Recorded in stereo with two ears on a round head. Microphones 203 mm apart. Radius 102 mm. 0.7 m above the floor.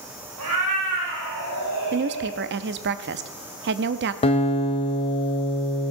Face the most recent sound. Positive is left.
turn(degrees=25)  # may be behind; listen again after turning